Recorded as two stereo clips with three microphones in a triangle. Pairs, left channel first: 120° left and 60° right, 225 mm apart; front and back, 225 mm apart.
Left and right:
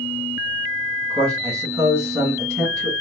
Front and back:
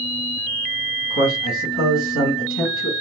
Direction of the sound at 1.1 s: 25° left.